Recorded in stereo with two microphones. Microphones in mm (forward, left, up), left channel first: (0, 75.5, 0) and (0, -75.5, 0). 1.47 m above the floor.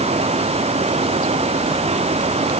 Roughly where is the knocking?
No knocking in this recording.